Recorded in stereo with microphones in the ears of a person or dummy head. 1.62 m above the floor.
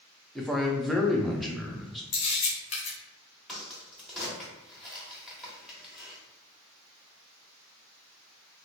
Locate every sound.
0.3 s a man speaking: centre (ahead or behind), 0.5 m
2.1 s a camera shutter: 30° left (ahead or behind), 1.1 m
3.5 s a crack: centre (ahead or behind), 0.9 m